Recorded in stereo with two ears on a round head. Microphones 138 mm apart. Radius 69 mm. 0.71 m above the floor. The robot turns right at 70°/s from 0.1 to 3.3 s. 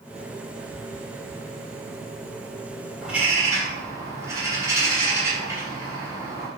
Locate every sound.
3.0 s a bird: centre (ahead or behind), 3.5 m; by 6.5 s 20° right (ahead or behind), 3.5 m